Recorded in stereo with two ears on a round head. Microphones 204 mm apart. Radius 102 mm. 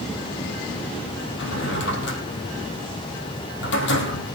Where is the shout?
No shout in this recording.